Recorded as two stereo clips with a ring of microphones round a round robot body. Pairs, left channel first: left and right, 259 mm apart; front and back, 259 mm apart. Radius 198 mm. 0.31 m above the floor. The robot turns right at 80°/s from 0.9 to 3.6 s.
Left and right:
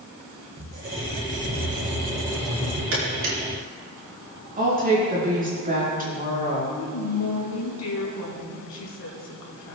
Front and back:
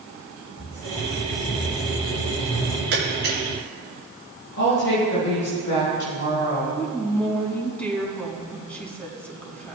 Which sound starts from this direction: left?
A woman speaking, at 6.8 s.